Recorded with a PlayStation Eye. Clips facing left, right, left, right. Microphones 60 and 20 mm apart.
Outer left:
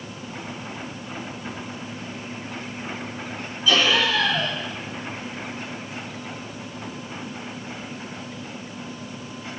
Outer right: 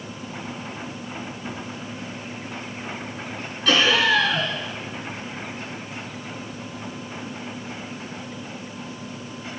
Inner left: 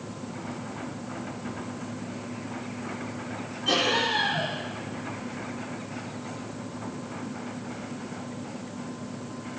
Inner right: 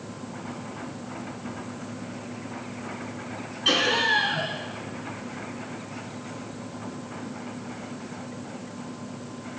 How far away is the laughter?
About 4.5 m.